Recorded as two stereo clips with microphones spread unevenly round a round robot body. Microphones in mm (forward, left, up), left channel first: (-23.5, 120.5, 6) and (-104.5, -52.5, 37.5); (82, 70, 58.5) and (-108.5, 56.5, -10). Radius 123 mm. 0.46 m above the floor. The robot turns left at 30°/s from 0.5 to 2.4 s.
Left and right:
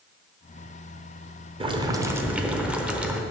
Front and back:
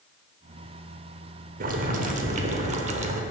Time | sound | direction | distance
1.6 | boiling | straight behind | 0.9 m